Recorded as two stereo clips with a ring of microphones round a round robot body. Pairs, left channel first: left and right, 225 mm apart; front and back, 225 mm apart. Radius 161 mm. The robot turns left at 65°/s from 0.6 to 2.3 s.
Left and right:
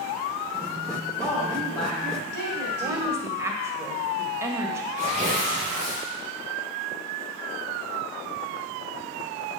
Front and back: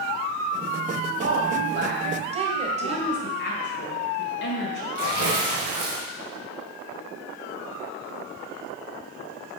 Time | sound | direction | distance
1.2 | a woman speaking | 165° right | 2 m
2.8 | a woman speaking | 15° right | 1.8 m
5.0 | tearing paper | 170° right | 2.5 m